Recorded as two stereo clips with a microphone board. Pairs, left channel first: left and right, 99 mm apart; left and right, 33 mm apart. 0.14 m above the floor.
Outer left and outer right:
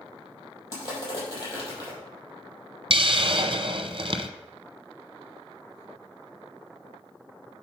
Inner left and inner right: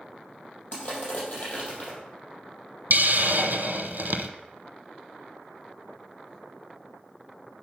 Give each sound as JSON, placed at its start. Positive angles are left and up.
{"t": 0.7, "sound": "crushing", "side_deg": 35, "distance_m": 4.5}
{"t": 2.9, "sound": "a hiss", "side_deg": -60, "distance_m": 0.7}